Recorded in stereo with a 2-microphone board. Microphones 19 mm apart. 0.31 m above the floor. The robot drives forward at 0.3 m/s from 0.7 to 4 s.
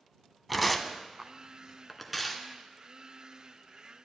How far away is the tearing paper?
About 0.6 m.